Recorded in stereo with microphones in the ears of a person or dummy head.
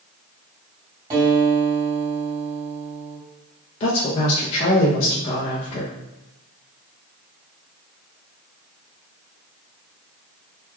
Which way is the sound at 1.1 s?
25° right (ahead or behind).